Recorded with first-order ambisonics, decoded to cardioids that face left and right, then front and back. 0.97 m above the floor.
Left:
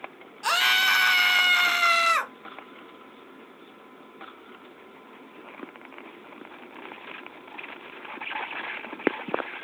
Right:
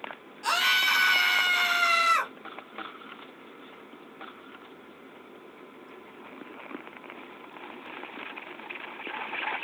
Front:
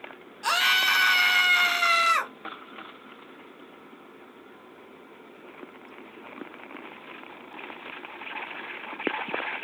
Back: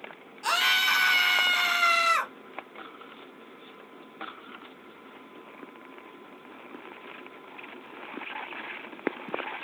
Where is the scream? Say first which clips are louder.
Left 2 dB, front 2 dB; 70° left, 0.6 m.